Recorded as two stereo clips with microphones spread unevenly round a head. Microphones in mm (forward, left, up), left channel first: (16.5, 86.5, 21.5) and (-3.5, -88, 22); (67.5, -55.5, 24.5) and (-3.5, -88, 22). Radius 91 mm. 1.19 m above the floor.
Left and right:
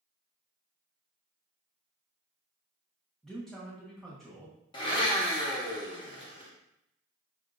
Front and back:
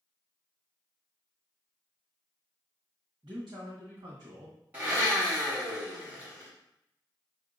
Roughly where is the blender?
Behind left.